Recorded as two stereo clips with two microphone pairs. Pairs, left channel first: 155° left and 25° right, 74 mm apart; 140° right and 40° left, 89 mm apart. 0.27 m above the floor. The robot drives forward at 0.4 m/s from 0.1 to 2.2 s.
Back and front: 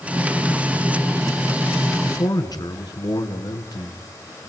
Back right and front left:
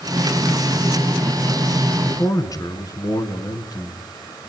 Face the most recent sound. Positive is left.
turn(degrees=175)